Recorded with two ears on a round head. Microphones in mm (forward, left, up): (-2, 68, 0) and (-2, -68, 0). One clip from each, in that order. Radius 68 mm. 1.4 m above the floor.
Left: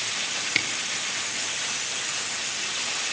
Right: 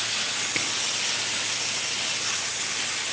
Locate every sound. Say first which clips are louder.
0.6 s a camera shutter: left 4 dB; 85° left, 1.7 m